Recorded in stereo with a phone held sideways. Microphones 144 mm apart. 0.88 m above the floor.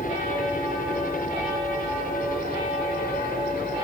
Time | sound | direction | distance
0.0 | a helicopter | 65° left (ahead or behind) | ?